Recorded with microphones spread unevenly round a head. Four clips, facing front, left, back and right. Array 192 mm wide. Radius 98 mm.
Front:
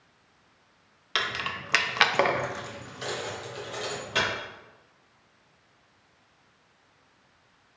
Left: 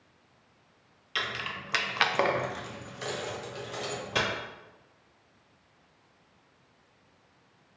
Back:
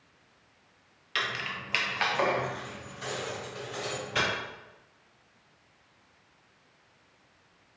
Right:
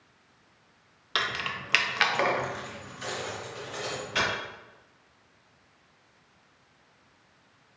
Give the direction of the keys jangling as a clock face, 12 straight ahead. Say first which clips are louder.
Right 3 dB, front 2 dB; 2 o'clock.